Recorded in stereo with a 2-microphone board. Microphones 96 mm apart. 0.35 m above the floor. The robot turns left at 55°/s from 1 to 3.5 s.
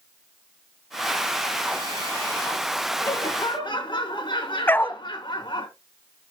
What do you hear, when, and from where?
3.0 s laughter: 25° left (ahead or behind), 2.5 m; by 5.7 s 45° left (ahead or behind), 2.5 m
4.7 s a dog barking: 20° left (ahead or behind), 0.6 m